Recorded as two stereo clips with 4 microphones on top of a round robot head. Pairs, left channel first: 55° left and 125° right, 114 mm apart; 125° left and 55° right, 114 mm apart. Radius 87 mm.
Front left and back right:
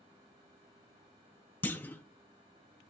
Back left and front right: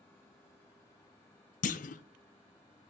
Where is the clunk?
130° left, 0.6 m.